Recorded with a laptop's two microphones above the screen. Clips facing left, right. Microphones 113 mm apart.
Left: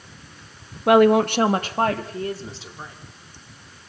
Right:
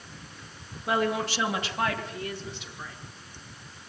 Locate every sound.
0.9 s a woman speaking: 65° left (ahead or behind), 0.9 m; by 3.0 s 30° left (ahead or behind), 2.5 m